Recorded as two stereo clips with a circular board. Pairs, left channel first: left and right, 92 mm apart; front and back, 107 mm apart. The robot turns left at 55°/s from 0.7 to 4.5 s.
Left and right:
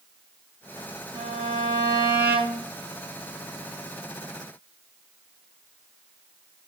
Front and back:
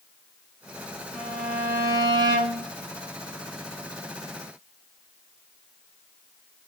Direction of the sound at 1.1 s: 90° right.